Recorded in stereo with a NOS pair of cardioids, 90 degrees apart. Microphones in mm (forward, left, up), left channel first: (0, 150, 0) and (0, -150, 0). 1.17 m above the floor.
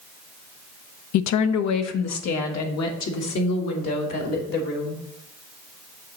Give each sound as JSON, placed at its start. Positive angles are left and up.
{"t": 1.1, "sound": "a woman speaking", "azimuth_deg": 70, "distance_m": 0.5}